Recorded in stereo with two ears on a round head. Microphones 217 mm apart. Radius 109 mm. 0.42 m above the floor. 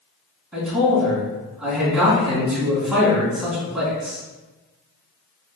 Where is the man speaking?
5° right (ahead or behind), 3 m.